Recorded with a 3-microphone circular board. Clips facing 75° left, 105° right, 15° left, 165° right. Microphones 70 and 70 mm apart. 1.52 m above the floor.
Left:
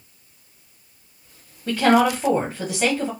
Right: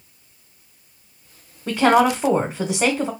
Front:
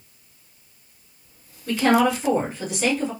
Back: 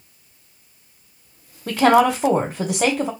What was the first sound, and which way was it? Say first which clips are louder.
A woman speaking: right 1 dB, back 4 dB; 170° right.